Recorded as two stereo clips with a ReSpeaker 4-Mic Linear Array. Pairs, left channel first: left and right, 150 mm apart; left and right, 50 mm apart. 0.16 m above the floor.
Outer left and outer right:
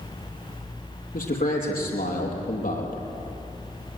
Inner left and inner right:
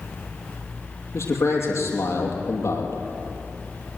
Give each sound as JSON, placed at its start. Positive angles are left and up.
{"t": 1.1, "sound": "a man speaking", "side_deg": 75, "distance_m": 6.0}